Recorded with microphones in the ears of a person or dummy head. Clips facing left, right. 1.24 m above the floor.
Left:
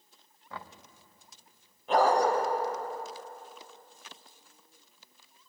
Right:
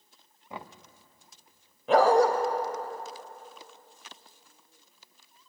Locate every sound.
0.5 s knocking: 20° right (ahead or behind), 0.7 m
1.9 s a dog barking: 70° right (ahead or behind), 2.5 m